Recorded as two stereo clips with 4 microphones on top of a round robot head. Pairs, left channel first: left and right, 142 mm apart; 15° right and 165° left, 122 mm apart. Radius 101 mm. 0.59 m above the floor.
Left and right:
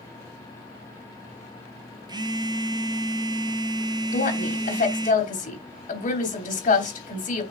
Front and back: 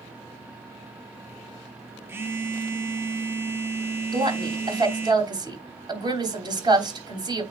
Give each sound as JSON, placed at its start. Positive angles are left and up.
{"t": 2.1, "sound": "a phone buzzing", "azimuth_deg": -135, "distance_m": 1.0}
{"t": 4.1, "sound": "a woman speaking", "azimuth_deg": 115, "distance_m": 3.5}